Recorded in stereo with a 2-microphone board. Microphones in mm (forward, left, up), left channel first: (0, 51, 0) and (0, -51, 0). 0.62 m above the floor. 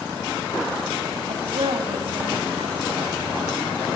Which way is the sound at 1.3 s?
75° right (ahead or behind).